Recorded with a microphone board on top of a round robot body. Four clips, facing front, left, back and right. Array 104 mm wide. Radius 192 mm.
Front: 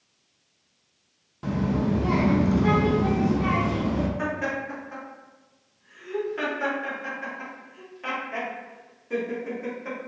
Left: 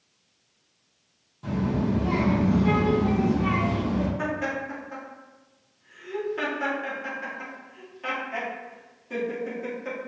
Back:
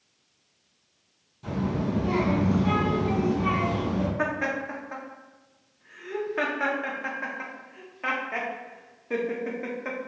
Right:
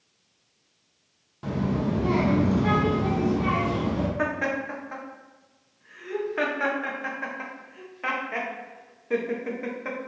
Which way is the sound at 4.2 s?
130° right.